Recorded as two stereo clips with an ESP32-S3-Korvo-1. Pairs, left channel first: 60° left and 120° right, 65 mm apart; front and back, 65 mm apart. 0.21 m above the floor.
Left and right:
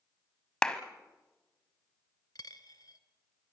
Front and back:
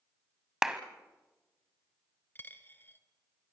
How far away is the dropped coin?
About 1.0 m.